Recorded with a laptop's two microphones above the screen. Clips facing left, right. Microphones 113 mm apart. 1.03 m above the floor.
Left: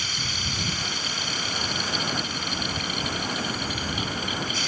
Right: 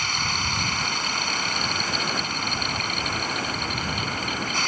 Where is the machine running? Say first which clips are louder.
Right 6 dB; 60° right (ahead or behind).